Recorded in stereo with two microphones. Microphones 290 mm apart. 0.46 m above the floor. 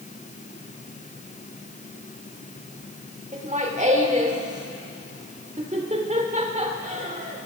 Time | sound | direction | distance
3.3 | laughter | 25° right (ahead or behind) | 1.6 m